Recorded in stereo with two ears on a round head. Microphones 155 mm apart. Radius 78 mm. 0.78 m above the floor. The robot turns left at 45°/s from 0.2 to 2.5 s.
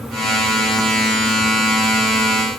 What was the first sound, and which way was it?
Only background noise.